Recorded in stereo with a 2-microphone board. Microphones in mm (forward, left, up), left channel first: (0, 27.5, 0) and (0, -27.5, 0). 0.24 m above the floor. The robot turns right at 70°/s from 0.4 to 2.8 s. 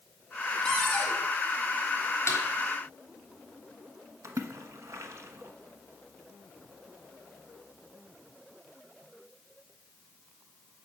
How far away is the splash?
About 1.1 m.